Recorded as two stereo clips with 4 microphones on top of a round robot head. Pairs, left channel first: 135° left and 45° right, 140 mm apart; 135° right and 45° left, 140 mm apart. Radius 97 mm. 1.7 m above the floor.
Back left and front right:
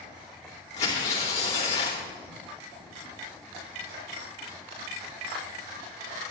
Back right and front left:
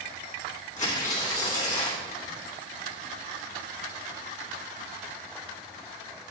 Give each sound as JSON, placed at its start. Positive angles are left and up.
{"t": 0.8, "sound": "tearing paper", "azimuth_deg": 180, "distance_m": 3.0}